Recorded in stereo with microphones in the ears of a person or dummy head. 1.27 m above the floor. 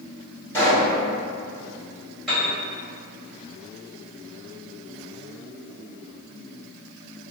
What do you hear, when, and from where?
0.5 s a pop: 10° left (ahead or behind), 1.9 m
2.3 s a piano: centre (ahead or behind), 1.8 m